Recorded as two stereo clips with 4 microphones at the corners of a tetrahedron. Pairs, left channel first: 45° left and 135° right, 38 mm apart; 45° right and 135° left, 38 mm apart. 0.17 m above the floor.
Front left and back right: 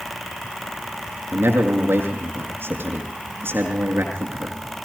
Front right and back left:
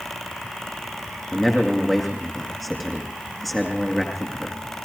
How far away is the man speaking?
About 8 m.